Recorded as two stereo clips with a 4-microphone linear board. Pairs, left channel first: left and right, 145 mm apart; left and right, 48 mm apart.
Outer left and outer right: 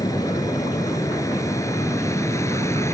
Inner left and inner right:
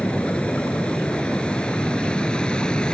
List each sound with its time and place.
0.0 s an aircraft: 20° left (ahead or behind)